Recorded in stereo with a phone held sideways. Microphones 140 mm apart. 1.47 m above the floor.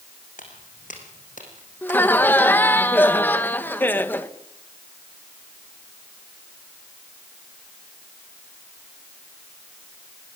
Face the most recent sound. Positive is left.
turn(degrees=15)  # may be behind; listen again after turning